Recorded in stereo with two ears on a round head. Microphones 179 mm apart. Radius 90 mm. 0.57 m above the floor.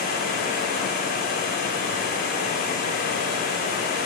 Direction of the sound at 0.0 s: 45° left (ahead or behind).